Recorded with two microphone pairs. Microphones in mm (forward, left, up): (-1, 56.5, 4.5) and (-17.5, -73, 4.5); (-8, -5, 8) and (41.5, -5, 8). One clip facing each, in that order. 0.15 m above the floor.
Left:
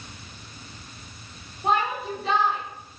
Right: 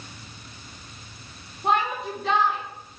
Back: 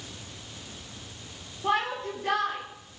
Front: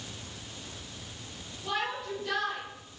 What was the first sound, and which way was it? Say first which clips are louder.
A shout: even, back 6 dB; 170° left.